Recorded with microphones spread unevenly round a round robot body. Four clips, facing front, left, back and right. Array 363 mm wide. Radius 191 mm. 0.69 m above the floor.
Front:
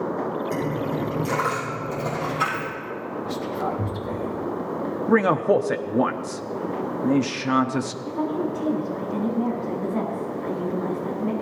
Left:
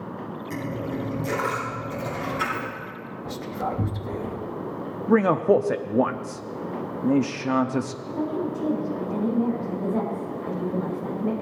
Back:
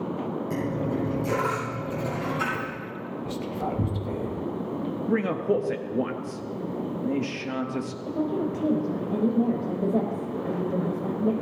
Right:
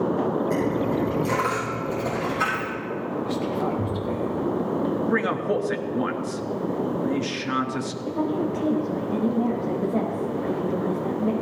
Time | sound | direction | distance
0.5 | a dropped coin | 165° left | 8 m
3.2 | whispering | 120° left | 1.1 m
5.1 | a man speaking | 40° left | 1.1 m
8.1 | a woman speaking | 170° right | 4 m